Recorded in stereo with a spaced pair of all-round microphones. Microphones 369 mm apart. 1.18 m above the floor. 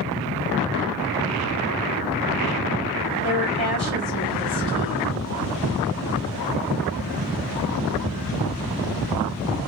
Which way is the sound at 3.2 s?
75° right (ahead or behind).